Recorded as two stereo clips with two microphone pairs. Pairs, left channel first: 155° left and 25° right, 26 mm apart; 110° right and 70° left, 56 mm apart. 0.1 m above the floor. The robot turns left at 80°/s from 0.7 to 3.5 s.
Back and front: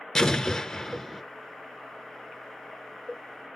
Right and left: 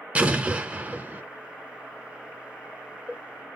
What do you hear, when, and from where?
0.1 s an explosion: 95° left, 0.8 m; by 1.2 s 55° left, 0.8 m